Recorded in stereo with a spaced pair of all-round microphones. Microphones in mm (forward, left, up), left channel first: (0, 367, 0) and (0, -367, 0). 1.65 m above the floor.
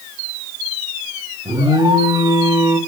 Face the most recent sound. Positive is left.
turn(degrees=-5)  # may be behind; listen again after turning